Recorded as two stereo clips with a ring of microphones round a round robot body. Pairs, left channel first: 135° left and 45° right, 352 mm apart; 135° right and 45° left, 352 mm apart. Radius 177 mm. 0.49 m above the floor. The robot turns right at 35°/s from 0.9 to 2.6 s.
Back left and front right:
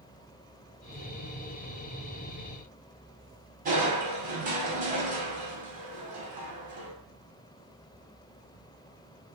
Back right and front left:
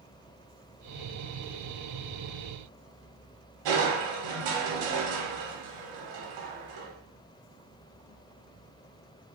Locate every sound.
3.6 s crushing: 25° left, 0.7 m